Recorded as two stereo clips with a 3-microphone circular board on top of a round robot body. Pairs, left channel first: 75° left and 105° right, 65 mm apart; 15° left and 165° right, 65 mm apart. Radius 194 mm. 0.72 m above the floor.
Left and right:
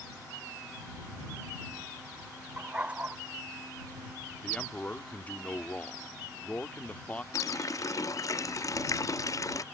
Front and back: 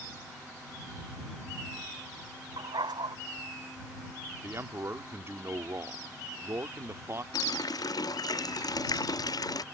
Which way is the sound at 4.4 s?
145° left.